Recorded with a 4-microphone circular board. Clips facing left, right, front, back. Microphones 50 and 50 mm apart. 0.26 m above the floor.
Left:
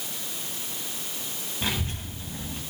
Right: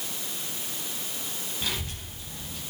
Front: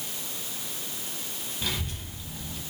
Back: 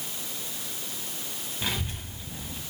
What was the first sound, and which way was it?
A child speaking, 130° left.